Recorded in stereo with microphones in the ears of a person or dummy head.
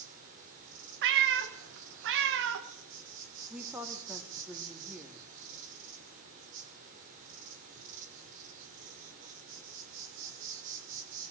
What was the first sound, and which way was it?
An insect, 45° right (ahead or behind).